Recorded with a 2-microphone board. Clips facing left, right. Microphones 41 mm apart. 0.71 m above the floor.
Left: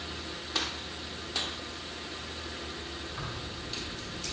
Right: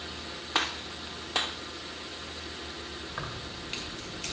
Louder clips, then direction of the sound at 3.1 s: Right 1 dB; 45° right (ahead or behind).